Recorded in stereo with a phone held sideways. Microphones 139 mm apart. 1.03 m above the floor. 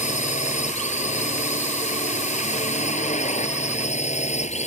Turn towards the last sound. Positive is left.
turn(degrees=55)  # may be behind; listen again after turning